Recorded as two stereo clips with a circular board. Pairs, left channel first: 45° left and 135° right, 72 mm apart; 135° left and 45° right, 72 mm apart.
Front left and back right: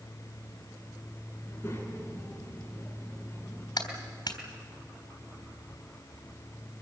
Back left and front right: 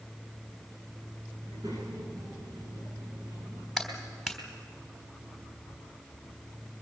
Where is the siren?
No siren in this recording.